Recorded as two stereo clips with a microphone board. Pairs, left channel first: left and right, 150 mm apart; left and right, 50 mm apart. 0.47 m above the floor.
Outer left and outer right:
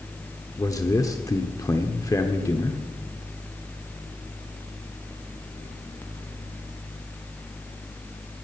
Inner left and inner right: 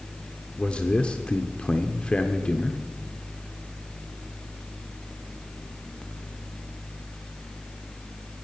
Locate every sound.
0.6 s a man speaking: 20° left (ahead or behind), 0.8 m